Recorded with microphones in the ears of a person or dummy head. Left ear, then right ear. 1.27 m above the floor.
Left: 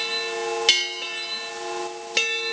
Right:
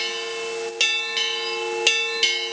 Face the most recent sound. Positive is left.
No sound to turn to.